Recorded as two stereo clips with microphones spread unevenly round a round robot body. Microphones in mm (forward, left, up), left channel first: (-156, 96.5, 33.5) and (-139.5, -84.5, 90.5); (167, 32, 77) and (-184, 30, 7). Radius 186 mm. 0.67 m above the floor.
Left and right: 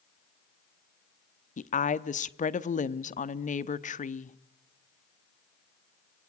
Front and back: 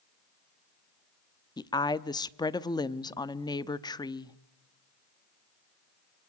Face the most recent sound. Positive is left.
turn(degrees=85)